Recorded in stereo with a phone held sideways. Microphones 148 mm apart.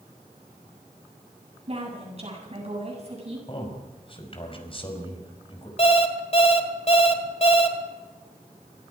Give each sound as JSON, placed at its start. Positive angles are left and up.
{"t": 1.7, "sound": "a woman speaking", "side_deg": -45, "distance_m": 8.5}
{"t": 3.5, "sound": "a man speaking", "side_deg": 35, "distance_m": 4.5}
{"t": 5.8, "sound": "an alarm clock", "side_deg": 45, "distance_m": 2.0}